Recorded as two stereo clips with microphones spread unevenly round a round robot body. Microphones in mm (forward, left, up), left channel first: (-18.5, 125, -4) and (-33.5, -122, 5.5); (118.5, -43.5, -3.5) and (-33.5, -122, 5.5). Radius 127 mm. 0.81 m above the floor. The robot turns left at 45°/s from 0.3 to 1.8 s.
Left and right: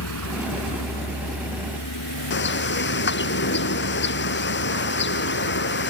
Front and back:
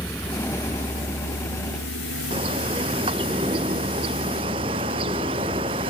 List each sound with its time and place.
0.0 s a vehicle: 110° left; by 5.9 s 75° left
2.3 s a bird: 135° left